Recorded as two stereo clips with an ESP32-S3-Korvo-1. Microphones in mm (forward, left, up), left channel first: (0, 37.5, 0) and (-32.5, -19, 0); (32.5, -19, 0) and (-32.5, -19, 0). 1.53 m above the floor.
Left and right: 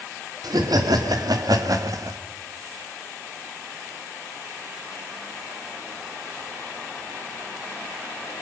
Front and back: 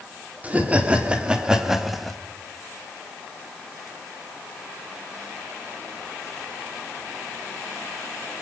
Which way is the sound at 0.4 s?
115° right.